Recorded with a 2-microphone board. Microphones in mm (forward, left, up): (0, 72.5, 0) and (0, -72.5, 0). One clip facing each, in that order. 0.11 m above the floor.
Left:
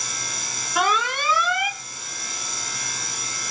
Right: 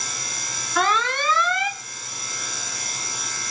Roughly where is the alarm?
Centre.